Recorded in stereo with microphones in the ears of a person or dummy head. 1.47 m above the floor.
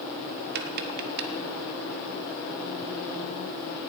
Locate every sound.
0.6 s tapping: 50° right (ahead or behind), 1.4 m